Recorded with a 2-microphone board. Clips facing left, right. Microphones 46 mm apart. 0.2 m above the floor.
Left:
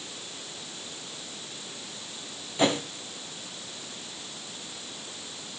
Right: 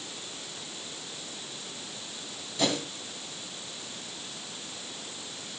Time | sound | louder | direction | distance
2.6 | a whoosh | left 4 dB | 30° left (ahead or behind) | 1.0 m